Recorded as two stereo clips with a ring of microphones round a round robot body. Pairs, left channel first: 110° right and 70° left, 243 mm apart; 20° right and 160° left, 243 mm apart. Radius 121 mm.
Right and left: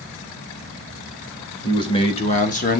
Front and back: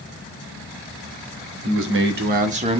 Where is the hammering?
No hammering in this recording.